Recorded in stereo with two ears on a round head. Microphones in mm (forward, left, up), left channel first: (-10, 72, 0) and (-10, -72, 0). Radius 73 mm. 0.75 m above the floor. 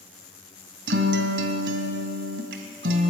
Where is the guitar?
70° right (ahead or behind), 2 m.